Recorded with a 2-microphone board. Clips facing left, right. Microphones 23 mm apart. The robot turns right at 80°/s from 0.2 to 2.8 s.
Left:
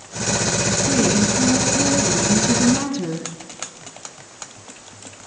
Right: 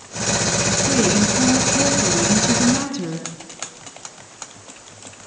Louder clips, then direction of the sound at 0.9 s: Even; 5° right (ahead or behind).